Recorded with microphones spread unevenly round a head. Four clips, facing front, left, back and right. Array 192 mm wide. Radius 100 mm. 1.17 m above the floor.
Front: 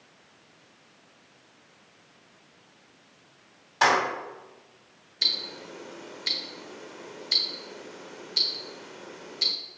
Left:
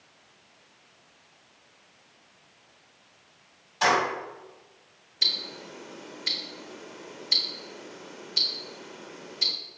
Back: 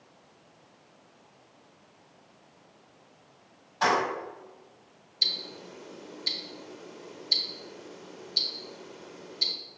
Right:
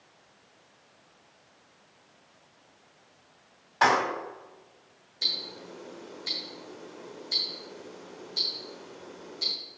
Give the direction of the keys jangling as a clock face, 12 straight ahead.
1 o'clock.